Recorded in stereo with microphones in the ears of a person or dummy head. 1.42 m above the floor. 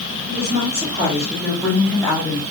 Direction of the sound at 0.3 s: 35° right (ahead or behind).